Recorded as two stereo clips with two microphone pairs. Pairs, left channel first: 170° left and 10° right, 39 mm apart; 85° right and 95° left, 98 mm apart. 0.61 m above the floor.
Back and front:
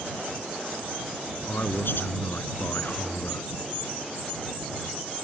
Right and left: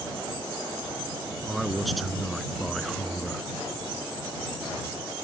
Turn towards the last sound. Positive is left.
turn(degrees=-175)